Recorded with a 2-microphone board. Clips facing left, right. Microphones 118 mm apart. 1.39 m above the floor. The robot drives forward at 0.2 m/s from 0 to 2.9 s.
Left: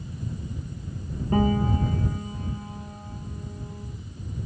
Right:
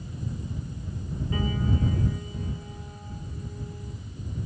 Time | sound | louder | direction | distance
1.3 | a piano | left 7 dB | 50° left (ahead or behind) | 0.9 m